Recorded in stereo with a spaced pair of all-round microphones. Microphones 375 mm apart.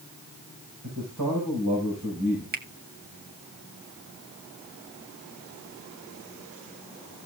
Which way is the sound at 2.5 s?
25° right (ahead or behind).